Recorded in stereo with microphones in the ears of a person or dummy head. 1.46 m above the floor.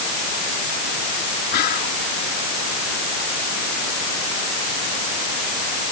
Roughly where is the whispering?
Left.